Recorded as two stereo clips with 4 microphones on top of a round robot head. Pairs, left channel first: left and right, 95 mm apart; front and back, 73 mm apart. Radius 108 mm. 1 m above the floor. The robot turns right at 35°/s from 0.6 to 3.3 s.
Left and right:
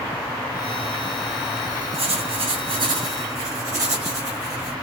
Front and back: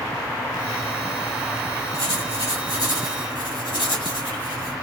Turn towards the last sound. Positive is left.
turn(degrees=-30)